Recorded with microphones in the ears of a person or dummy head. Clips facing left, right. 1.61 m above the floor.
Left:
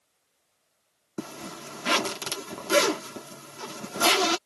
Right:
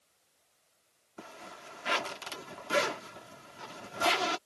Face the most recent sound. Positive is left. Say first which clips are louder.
# left 11 dB
turn(degrees=60)  # may be behind; listen again after turning